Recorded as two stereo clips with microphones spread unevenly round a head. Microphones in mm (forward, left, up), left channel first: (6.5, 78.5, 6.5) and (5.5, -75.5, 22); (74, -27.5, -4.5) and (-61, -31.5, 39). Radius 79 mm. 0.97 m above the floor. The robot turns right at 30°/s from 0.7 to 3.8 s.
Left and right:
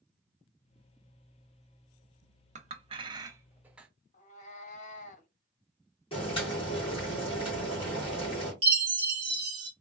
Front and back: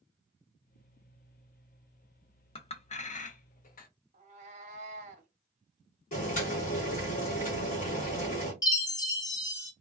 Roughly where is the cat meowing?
Behind left.